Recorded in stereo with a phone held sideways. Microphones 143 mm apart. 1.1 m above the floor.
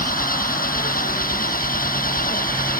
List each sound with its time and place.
0.0 s an engine running: 80° left